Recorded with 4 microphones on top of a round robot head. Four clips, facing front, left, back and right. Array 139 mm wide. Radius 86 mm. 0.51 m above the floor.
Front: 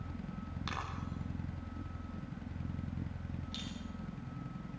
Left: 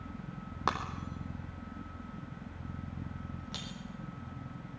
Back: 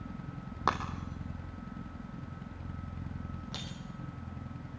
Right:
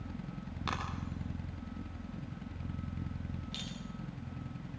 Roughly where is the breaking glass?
Behind left.